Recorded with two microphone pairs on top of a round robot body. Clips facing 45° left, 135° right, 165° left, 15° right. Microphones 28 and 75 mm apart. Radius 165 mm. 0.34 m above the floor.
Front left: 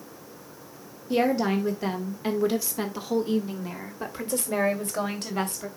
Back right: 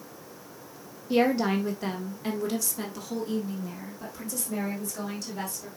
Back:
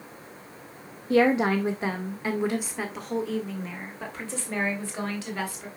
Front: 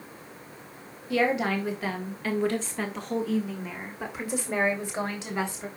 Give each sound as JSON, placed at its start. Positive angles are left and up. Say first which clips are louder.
{"t": 1.1, "sound": "a woman speaking", "louder": "even, back 4 dB", "azimuth_deg": 140, "distance_m": 1.9}